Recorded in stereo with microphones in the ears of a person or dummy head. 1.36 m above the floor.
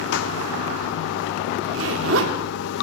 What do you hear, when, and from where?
0.0 s running water: 70° left (ahead or behind), 0.8 m
1.6 s a zipper: 75° right (ahead or behind), 2 m